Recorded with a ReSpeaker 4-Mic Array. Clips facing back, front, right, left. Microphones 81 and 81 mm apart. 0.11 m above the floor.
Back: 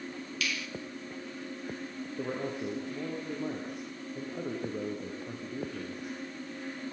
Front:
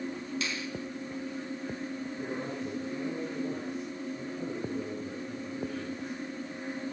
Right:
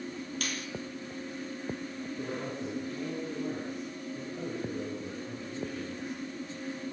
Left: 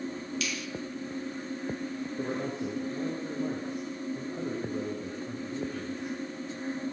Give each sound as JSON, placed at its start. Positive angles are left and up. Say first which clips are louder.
{"t": 0.4, "sound": "a finger snap", "louder": "front 1 dB, left 2 dB", "azimuth_deg": -60, "distance_m": 2.0}
{"t": 2.2, "sound": "a man speaking", "louder": "back 4 dB, left 4 dB", "azimuth_deg": 155, "distance_m": 9.5}